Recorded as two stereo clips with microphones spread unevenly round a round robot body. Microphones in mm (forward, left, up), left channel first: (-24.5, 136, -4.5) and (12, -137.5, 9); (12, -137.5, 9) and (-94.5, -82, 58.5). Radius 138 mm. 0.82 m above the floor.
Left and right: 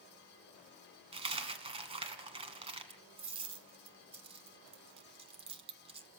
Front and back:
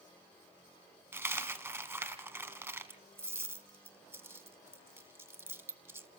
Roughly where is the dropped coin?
Behind right.